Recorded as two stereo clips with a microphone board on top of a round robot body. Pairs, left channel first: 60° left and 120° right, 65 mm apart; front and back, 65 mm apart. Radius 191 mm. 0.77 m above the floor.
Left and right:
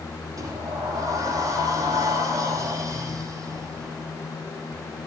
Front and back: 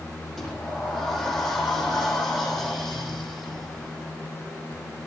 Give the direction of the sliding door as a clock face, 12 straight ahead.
3 o'clock.